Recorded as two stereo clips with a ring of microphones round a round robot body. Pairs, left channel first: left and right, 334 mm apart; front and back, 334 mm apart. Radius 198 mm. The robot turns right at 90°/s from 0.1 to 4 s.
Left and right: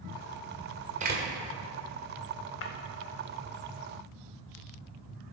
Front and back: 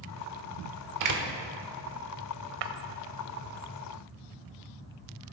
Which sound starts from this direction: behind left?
Breaking glass, at 2.6 s.